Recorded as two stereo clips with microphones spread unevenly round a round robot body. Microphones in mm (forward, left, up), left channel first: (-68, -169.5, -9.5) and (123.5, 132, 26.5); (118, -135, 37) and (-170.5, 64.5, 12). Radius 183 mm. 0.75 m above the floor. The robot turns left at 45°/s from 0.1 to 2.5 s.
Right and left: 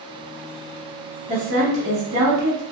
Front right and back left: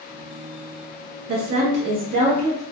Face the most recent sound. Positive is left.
turn(degrees=75)